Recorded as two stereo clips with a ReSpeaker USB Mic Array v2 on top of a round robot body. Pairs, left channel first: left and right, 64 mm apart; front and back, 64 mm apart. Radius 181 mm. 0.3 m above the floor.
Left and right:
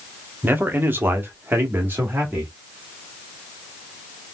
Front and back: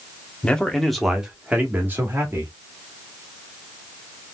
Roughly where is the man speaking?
Ahead right.